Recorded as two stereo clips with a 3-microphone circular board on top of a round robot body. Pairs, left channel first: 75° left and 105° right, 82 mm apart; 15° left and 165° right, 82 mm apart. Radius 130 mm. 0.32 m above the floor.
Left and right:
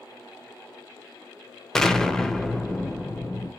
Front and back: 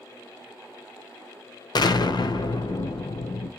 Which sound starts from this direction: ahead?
An explosion, at 1.8 s.